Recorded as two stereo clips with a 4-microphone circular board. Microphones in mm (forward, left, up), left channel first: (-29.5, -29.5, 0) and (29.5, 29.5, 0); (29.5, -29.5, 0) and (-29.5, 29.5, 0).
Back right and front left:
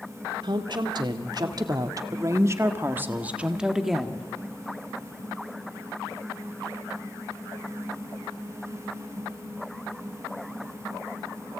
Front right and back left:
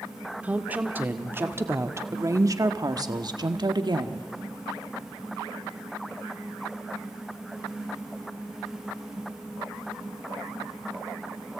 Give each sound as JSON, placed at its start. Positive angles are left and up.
{"t": 0.4, "sound": "a woman speaking", "azimuth_deg": 60, "distance_m": 2.0}